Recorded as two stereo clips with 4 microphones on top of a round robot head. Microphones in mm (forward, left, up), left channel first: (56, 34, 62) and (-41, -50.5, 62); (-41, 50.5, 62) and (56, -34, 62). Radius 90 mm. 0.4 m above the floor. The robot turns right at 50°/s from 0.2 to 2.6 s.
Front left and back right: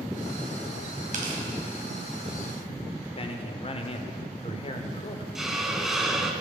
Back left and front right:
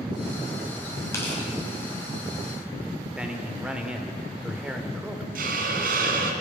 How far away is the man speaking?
About 1.1 m.